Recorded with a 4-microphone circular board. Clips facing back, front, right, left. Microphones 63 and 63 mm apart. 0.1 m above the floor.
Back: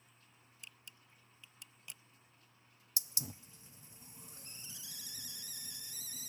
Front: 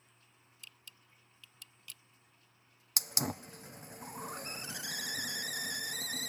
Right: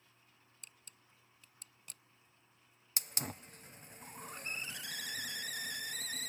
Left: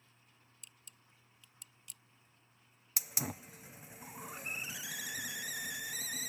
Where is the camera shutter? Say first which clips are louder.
Even, right 2 dB; 110° right.